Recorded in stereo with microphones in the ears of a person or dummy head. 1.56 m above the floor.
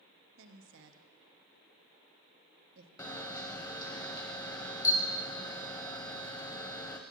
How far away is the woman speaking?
About 0.9 m.